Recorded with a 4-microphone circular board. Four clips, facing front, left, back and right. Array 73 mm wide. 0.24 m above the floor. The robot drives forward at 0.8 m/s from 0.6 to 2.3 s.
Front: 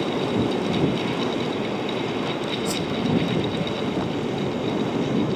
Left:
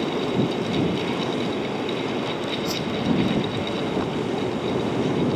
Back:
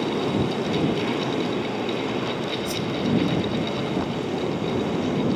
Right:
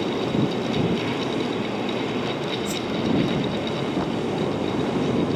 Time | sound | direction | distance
2.6 | a whoosh | 30° left | ?